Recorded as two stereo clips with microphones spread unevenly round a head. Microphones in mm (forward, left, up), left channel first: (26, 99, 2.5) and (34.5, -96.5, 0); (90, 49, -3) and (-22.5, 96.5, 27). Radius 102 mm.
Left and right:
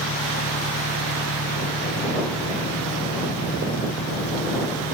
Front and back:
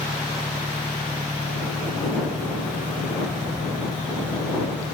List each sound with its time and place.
0.0 s an engine running: 75° left